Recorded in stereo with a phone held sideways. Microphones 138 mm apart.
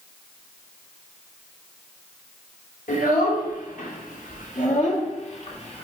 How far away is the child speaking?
About 2.5 m.